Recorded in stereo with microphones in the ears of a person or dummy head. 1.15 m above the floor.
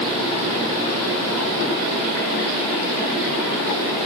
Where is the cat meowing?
I don't hear a cat meowing.